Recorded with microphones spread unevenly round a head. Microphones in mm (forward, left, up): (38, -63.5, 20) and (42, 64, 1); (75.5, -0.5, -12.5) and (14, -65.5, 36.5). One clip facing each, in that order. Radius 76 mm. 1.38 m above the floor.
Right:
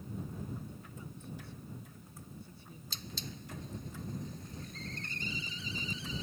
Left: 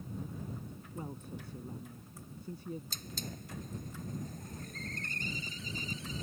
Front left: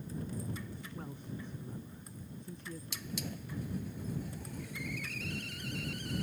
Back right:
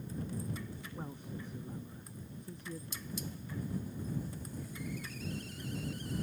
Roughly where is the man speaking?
Behind left.